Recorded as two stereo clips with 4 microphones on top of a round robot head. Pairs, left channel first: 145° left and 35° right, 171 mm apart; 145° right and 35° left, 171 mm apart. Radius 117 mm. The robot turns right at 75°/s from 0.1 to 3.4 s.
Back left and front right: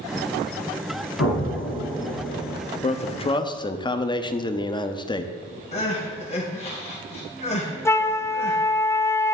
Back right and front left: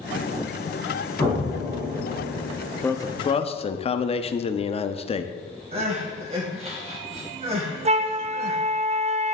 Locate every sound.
1.2 s an explosion: 145° left, 2 m; by 2.6 s 110° right, 2 m
2.8 s a man speaking: 145° left, 0.7 m; by 5.3 s 170° right, 0.7 m
5.7 s crying: 95° left, 2.5 m
7.8 s a flute: 75° left, 0.6 m